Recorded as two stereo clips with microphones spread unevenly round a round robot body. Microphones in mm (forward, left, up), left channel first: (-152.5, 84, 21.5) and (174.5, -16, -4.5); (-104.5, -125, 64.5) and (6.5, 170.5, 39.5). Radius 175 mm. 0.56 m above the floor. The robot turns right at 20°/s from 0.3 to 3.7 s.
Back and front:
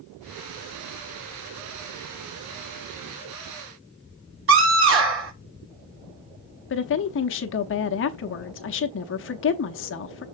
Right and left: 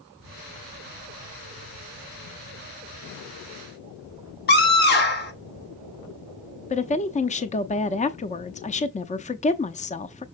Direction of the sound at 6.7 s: 170° right.